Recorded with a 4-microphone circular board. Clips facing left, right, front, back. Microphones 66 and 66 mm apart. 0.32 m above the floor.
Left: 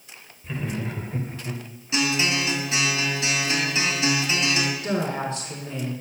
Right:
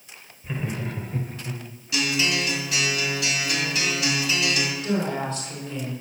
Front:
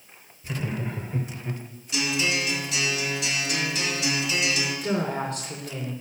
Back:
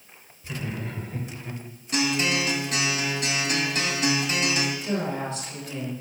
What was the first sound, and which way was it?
Laughter, 35° right.